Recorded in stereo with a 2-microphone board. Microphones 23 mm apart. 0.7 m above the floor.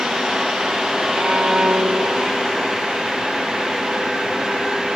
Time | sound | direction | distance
1.1 | a violin | 45° right (ahead or behind) | 1.2 m